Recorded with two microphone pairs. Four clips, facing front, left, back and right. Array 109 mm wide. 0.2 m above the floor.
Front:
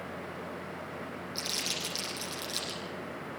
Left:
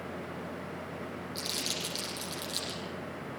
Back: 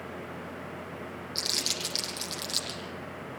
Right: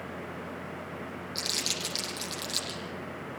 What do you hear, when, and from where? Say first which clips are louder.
1.4 s crumpling: right 1 dB, back 1 dB; 160° right, 6.5 m